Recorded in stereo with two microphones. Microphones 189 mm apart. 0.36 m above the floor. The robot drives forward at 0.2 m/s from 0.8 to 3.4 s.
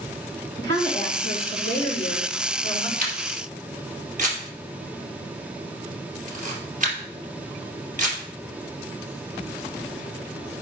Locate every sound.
0.6 s a woman speaking: 70° right (ahead or behind), 3.5 m; by 2.9 s 75° right (ahead or behind), 3.5 m
3.0 s a camera shutter: 45° right (ahead or behind), 3 m; by 8.2 s 40° right (ahead or behind), 3 m